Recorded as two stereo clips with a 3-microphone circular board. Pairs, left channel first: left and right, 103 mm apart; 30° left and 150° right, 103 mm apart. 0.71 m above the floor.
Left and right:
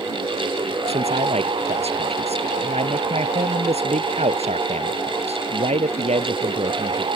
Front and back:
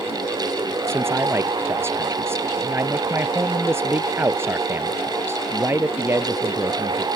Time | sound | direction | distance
0.9 | a man speaking | 80° right | ?